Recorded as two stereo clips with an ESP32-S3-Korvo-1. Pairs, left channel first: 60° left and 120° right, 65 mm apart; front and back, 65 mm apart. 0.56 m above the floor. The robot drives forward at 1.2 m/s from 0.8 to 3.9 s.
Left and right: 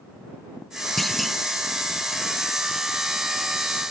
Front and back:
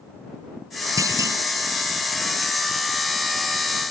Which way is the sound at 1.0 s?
145° left.